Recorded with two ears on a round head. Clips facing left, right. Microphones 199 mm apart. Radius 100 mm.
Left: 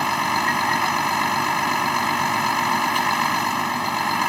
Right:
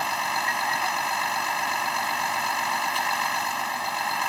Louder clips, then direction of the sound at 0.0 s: Left 6 dB; 60° left (ahead or behind).